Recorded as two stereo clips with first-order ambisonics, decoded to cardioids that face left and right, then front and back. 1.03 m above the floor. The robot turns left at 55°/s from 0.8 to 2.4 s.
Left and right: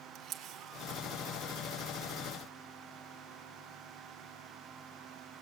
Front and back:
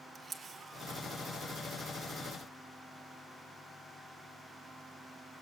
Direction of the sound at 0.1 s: 115° right.